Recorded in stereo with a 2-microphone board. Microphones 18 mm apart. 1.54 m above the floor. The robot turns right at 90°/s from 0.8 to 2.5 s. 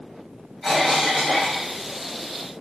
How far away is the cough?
About 1.8 m.